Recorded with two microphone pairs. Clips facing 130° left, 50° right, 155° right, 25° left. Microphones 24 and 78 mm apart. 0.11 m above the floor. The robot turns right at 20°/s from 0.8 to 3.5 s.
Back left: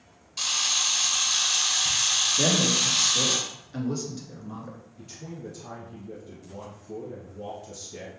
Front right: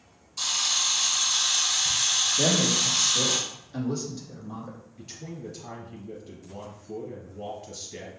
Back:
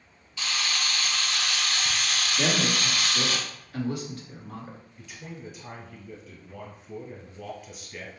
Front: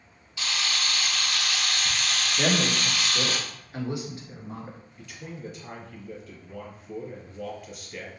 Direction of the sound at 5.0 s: 75° right.